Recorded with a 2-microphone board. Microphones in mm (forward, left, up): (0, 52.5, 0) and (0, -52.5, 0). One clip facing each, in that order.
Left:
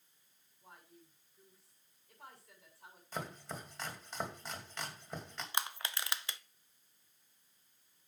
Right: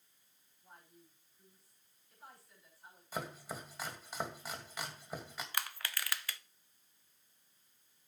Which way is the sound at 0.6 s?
85° left.